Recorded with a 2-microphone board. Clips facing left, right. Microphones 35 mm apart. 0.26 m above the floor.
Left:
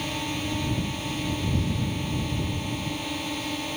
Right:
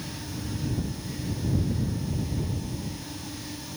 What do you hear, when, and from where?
0.0 s a drone: 60° left (ahead or behind); by 3.8 s 55° left (ahead or behind)